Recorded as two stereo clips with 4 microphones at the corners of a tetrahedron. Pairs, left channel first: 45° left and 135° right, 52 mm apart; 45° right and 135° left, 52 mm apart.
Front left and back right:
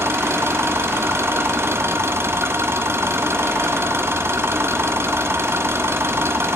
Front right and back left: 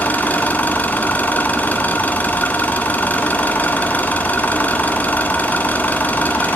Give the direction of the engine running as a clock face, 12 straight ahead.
3 o'clock.